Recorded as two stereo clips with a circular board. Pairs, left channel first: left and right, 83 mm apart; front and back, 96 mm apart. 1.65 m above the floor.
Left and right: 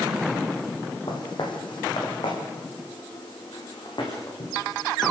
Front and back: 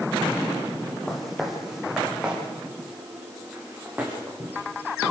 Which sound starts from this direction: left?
Footsteps, at 1.1 s.